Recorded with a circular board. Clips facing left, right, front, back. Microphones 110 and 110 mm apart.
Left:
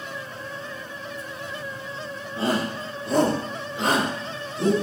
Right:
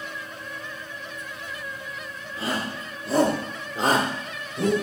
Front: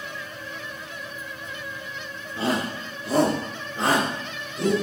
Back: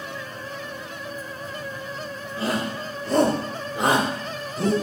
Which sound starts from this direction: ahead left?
A shout, at 2.4 s.